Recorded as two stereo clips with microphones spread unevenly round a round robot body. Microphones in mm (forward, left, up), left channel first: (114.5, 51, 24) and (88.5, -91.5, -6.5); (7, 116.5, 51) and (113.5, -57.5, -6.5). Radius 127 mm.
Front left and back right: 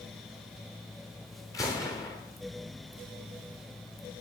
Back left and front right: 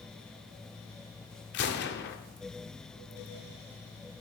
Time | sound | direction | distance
1.5 | a gunshot | 150° left | 0.8 m